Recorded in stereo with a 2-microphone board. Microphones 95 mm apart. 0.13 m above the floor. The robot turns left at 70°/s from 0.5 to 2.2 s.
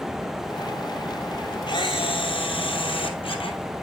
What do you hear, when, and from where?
1.7 s a camera shutter: 120° left, 1.3 m; by 3.6 s 80° left, 1.3 m